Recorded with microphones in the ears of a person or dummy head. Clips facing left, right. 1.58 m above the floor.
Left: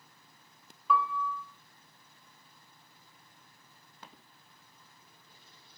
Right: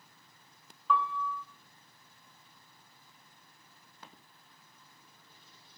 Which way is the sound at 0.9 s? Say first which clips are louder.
Left 1 dB; 10° left (ahead or behind).